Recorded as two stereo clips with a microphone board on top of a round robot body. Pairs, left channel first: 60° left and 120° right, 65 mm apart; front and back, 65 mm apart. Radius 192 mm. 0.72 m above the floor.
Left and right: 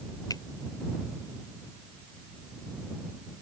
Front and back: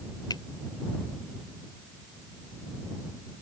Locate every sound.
0.3 s a finger snap: 25° left